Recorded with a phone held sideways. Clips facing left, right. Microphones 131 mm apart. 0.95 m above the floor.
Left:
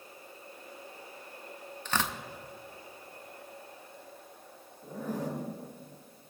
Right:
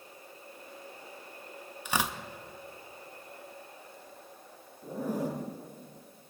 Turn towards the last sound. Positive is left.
turn(degrees=-15)  # may be behind; listen again after turning